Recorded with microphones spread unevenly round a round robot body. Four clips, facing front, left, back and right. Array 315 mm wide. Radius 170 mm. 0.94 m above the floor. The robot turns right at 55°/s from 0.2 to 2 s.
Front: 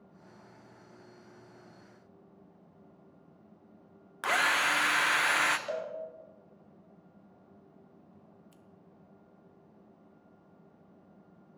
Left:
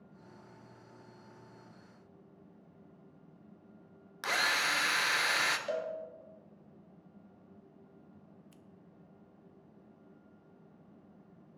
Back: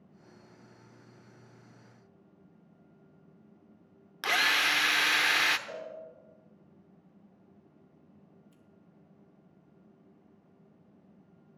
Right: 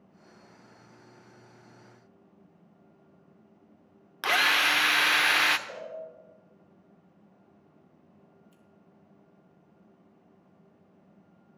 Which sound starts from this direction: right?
A drill, at 4.2 s.